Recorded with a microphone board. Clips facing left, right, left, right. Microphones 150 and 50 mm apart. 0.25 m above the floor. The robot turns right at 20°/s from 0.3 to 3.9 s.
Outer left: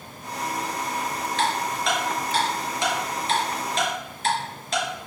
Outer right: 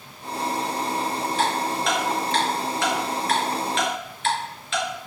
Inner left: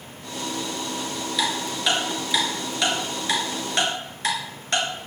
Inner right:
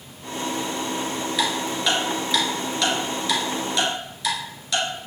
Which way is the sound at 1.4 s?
10° right (ahead or behind).